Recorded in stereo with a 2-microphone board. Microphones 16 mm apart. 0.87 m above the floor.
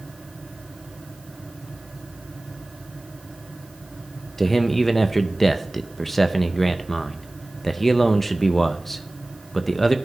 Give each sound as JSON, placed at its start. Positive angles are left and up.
{"t": 4.4, "sound": "a man speaking", "side_deg": 15, "distance_m": 0.5}